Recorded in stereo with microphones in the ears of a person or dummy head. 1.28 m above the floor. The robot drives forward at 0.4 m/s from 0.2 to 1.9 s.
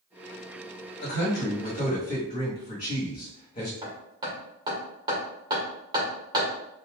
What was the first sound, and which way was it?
A man speaking, 55° left (ahead or behind).